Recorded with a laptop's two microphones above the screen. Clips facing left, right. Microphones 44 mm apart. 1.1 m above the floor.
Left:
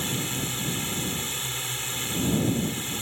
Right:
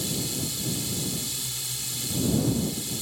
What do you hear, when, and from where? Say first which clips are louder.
0.0 s a drone: left 2 dB; 40° left (ahead or behind)